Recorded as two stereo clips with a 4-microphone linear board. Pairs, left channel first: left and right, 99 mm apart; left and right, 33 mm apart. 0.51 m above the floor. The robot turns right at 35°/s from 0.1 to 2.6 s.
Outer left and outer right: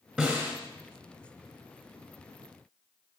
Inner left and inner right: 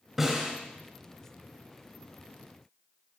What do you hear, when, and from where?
0.2 s a snare drum: 10° right (ahead or behind), 3.5 m; by 0.5 s 25° right (ahead or behind), 3.5 m